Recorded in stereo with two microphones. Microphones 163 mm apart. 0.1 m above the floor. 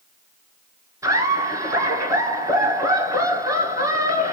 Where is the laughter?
20° right (ahead or behind), 1.8 m.